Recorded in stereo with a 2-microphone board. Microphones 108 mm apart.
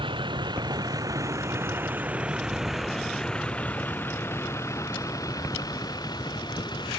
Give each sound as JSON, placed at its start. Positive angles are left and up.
{"t": 0.0, "sound": "a vehicle", "side_deg": -50}